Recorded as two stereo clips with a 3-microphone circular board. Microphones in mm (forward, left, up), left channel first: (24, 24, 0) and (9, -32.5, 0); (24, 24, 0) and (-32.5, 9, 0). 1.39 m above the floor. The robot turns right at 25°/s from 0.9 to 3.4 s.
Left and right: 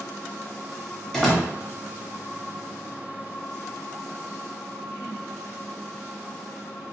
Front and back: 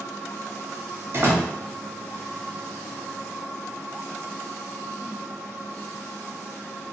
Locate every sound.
1.1 s a door slam: 155° left, 1.0 m; by 1.5 s 165° left, 1.0 m